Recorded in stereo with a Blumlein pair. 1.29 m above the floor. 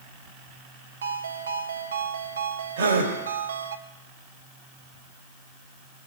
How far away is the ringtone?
About 1.0 m.